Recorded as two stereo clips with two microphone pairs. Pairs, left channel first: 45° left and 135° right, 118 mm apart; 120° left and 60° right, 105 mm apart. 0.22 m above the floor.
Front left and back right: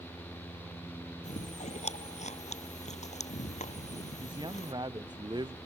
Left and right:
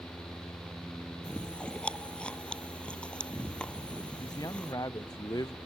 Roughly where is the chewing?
Ahead left.